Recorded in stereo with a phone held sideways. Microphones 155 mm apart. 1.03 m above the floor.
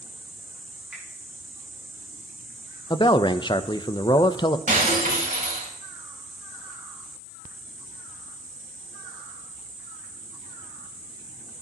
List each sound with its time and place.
0.9 s a finger snap: 5° right (ahead or behind), 6.5 m
2.9 s a man speaking: 30° left (ahead or behind), 0.6 m
4.7 s breaking glass: 55° right (ahead or behind), 3 m